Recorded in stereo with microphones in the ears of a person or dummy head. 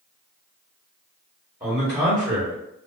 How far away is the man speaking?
About 1.3 m.